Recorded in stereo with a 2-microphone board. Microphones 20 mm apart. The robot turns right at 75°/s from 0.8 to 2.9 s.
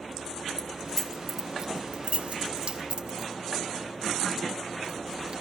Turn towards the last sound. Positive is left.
turn(degrees=-50)  # may be behind; listen again after turning